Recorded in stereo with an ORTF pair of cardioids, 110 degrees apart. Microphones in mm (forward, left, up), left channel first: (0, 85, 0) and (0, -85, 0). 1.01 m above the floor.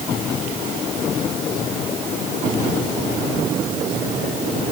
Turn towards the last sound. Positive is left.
No sound to turn to.